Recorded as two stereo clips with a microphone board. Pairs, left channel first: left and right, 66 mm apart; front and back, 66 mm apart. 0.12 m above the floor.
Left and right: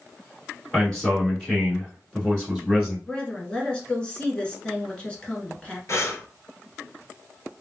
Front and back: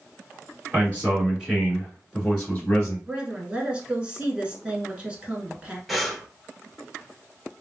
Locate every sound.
0.7 s a man speaking: 160° left, 1.9 m; by 3.0 s 15° left, 1.7 m
3.1 s a woman speaking: 135° left, 1.2 m
5.9 s breathing: 90° left, 0.7 m